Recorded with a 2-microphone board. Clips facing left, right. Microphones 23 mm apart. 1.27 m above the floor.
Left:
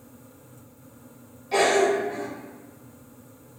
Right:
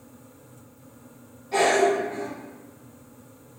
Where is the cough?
80° left, 1.9 m.